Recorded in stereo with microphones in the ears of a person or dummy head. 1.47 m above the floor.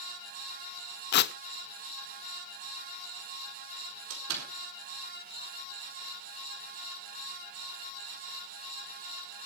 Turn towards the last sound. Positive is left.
turn(degrees=-75)  # may be behind; listen again after turning